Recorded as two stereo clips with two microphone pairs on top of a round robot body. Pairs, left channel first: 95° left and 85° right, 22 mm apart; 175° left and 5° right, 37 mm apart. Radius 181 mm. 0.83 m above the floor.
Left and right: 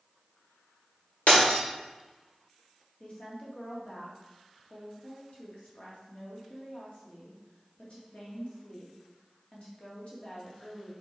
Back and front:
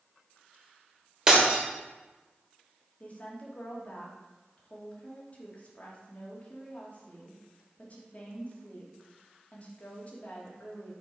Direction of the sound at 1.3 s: 70° left.